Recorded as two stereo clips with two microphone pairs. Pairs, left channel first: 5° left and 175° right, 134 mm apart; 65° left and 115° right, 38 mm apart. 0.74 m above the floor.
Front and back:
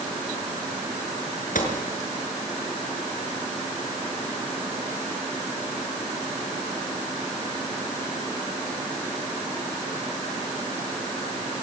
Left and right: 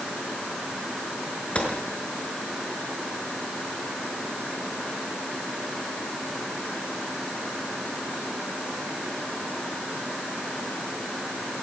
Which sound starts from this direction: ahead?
A gunshot, at 1.6 s.